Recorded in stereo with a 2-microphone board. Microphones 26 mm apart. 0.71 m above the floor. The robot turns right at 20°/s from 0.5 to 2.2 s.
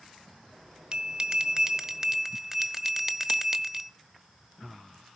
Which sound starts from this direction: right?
A bell, at 0.9 s.